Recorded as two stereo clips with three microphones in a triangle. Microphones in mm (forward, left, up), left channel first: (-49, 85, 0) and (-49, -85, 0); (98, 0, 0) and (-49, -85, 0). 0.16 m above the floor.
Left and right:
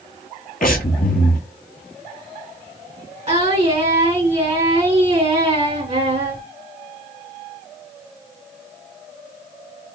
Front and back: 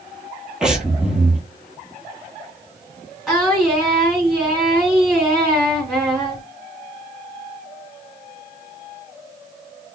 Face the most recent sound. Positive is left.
turn(degrees=-60)